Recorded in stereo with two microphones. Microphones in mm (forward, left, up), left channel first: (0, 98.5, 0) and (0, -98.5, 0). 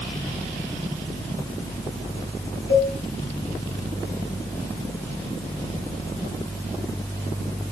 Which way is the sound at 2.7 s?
70° left (ahead or behind).